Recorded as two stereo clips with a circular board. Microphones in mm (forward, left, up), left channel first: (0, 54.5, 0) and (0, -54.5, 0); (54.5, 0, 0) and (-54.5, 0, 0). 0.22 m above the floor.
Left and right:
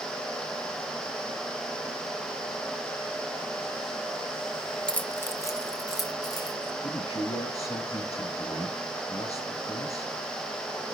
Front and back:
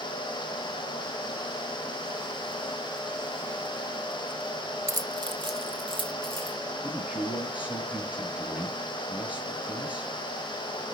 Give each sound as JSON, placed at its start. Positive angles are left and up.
{"t": 4.9, "sound": "keys jangling", "azimuth_deg": 165, "distance_m": 0.7}
{"t": 6.8, "sound": "a man speaking", "azimuth_deg": 105, "distance_m": 3.5}